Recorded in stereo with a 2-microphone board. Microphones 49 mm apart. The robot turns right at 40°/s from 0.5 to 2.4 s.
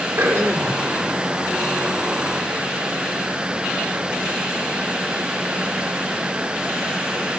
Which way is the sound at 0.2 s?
55° right (ahead or behind).